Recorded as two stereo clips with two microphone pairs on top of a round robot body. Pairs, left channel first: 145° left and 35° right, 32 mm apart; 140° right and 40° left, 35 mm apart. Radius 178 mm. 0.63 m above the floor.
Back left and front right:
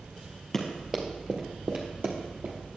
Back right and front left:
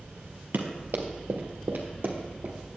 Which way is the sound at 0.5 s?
70° left.